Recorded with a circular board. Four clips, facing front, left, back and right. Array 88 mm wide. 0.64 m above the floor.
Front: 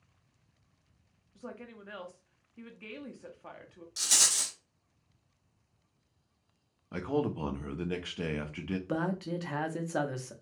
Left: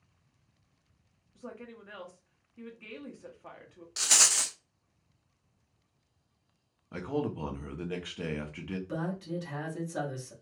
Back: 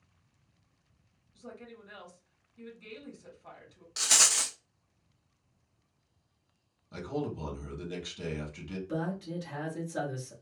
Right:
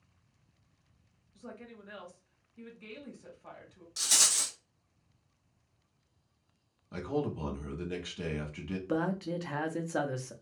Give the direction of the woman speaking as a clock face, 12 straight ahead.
11 o'clock.